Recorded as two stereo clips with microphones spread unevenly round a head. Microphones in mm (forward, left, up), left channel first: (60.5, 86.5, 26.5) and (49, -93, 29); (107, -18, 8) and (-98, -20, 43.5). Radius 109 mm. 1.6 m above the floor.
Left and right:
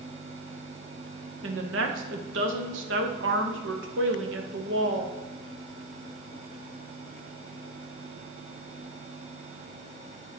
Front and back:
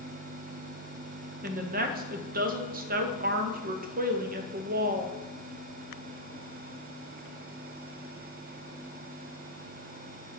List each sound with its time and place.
1.4 s a woman speaking: 130° right, 1.0 m